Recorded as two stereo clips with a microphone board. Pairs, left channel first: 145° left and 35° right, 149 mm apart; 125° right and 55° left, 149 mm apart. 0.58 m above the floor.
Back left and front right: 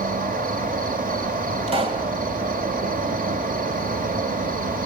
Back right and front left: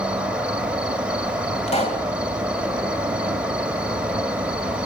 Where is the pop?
80° right, 3 m.